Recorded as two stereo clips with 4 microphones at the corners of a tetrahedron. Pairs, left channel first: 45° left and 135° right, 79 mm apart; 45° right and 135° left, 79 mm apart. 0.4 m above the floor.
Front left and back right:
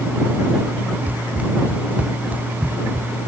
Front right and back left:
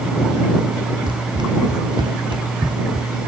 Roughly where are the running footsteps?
Behind left.